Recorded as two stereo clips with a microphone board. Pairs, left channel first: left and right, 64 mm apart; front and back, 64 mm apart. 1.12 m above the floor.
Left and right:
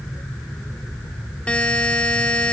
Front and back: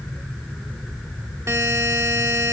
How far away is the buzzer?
About 1.2 m.